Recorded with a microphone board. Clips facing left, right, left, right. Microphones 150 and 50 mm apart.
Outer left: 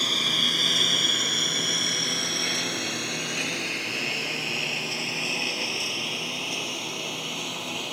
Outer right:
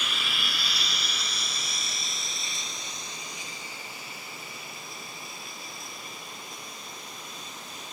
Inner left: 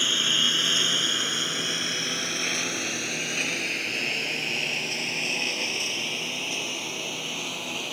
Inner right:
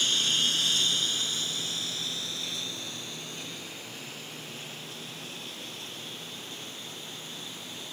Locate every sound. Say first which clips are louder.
0.0 s a lawn mower: outer left 5 dB, inner left 4 dB; 40° left (ahead or behind); by 7.9 s 75° left (ahead or behind)